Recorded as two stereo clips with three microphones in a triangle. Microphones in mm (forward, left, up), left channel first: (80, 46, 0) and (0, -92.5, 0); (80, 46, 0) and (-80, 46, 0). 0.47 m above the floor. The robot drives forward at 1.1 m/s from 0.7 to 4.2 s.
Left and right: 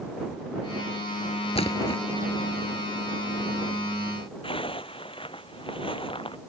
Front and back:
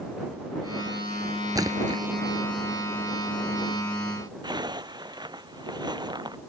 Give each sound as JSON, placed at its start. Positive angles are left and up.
{"t": 1.6, "sound": "a splash", "azimuth_deg": 110}
{"t": 4.4, "sound": "a zipper", "azimuth_deg": 115}